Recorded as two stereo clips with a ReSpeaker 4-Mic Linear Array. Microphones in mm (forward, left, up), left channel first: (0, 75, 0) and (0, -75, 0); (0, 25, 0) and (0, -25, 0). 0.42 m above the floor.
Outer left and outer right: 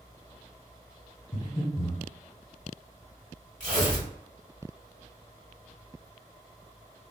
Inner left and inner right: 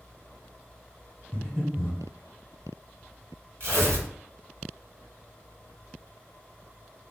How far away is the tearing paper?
About 1.3 m.